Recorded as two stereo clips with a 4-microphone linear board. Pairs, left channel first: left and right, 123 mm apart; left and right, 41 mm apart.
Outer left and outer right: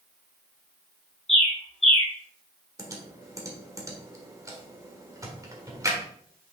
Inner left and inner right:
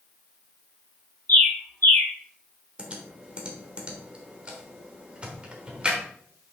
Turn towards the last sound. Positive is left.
turn(degrees=-25)  # may be behind; listen again after turning